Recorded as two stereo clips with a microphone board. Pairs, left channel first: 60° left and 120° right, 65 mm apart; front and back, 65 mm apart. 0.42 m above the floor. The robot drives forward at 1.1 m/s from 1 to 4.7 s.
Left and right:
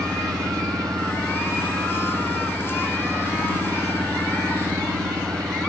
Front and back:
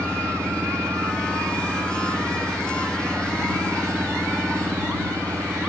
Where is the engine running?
130° right; by 5.7 s 135° right.